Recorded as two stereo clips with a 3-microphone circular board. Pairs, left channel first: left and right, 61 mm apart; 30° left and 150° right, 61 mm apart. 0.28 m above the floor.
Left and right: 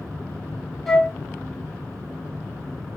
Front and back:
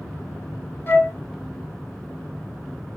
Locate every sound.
0.9 s a flute: 15° left, 1.0 m